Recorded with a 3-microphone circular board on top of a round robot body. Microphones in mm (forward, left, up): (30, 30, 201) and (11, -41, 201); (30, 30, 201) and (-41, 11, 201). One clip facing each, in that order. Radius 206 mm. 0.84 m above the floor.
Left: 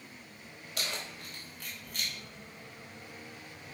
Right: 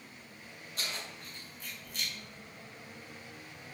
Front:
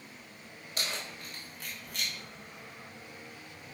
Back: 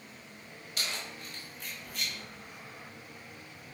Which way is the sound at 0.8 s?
65° left.